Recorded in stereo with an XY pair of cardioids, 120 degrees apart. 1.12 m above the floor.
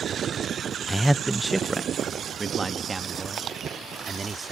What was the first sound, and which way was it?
A man speaking, straight ahead.